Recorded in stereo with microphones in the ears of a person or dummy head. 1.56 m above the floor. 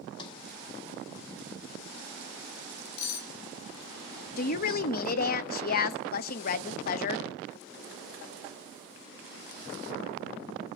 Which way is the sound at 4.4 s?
50° left (ahead or behind).